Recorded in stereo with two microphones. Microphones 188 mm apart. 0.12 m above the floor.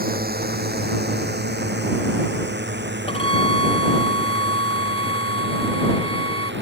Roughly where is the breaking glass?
I don't hear breaking glass.